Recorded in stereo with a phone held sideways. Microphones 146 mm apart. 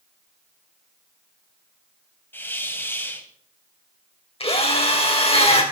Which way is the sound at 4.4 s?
45° left (ahead or behind).